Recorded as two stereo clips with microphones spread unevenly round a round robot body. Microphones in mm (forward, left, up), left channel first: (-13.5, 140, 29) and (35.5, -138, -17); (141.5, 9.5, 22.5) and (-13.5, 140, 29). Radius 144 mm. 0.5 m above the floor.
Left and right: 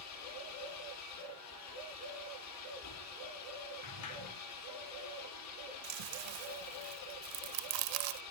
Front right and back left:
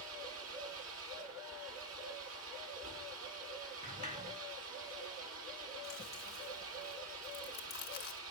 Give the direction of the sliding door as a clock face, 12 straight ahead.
9 o'clock.